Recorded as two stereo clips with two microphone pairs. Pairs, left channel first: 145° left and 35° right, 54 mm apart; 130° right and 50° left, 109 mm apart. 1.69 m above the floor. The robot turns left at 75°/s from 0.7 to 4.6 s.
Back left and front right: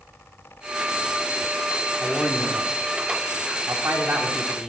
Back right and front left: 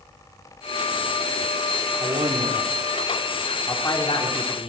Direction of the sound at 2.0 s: 60° left.